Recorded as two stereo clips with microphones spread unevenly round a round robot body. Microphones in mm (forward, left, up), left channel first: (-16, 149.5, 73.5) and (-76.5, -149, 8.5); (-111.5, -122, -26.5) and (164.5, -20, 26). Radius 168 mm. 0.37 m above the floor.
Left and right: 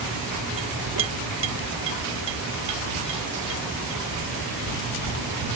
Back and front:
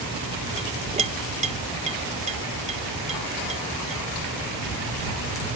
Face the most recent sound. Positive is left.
turn(degrees=-50)